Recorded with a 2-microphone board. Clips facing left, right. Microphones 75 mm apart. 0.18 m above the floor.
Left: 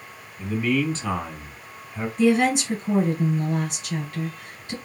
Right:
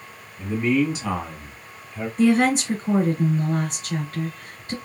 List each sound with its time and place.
0.4 s a man speaking: 35° right (ahead or behind), 1.4 m; by 2.1 s 35° left (ahead or behind), 1.4 m
2.2 s a woman speaking: 40° right (ahead or behind), 2 m